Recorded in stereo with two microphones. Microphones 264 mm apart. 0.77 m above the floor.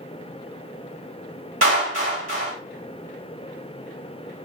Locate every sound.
1.6 s a clap: 55° right (ahead or behind), 2.0 m